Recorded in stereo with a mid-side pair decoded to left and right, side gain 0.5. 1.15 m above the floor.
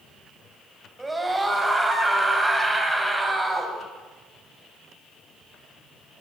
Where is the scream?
15° right, 7.5 m.